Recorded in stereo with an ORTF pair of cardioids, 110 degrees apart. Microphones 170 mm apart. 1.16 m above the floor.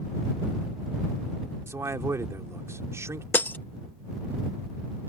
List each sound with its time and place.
1.7 s a man speaking: 15° right
3.3 s breaking glass: 10° left